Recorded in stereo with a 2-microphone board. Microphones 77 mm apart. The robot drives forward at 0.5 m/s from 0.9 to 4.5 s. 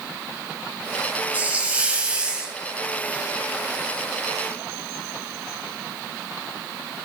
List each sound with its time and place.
1.3 s a hiss: 20° right (ahead or behind), 0.8 m; by 2.6 s 15° right (ahead or behind), 1.1 m